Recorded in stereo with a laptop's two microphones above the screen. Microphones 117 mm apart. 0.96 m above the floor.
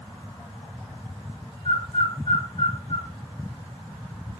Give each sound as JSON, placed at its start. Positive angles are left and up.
{"t": 1.6, "sound": "a bird", "side_deg": 40, "distance_m": 1.7}